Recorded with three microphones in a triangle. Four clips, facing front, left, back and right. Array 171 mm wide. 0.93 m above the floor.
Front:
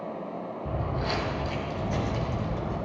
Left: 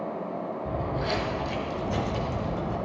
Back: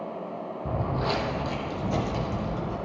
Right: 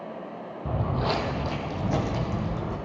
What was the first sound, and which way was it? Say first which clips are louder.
Footsteps: right 4 dB, back 3 dB; 130° right.